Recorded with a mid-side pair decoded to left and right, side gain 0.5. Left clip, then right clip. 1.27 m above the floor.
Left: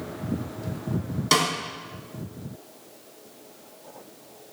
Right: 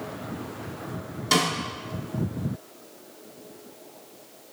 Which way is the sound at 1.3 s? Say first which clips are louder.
Left 1 dB; 25° left.